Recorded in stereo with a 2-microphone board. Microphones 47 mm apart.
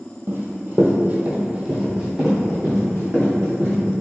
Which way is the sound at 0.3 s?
55° right (ahead or behind).